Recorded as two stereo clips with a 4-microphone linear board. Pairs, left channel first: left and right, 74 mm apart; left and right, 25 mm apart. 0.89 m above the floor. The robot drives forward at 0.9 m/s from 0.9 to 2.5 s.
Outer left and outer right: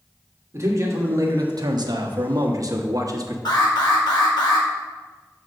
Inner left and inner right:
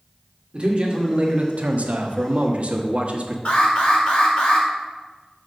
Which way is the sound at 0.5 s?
40° right (ahead or behind).